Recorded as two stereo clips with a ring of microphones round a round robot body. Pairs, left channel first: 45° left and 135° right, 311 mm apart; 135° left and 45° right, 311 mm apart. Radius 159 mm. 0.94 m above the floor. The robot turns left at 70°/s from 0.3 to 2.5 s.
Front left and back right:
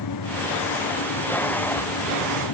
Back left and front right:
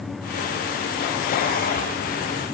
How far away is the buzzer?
No buzzer in this recording.